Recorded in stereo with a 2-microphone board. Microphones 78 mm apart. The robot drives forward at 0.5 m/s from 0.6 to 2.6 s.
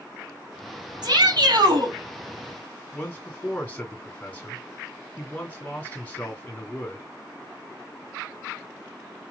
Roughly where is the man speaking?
Left.